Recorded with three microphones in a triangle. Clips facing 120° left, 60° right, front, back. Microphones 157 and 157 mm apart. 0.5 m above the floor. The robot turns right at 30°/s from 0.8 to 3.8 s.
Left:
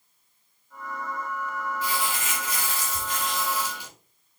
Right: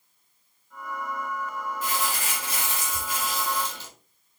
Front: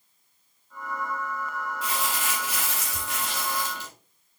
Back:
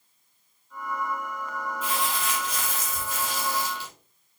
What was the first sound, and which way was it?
Crumpling, 20° right.